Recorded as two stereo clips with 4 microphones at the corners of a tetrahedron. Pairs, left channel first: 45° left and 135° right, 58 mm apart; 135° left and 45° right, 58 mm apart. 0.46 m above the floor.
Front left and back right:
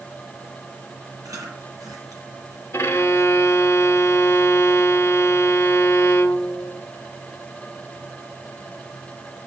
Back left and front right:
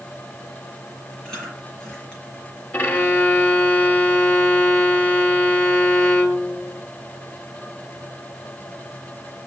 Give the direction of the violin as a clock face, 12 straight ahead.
9 o'clock.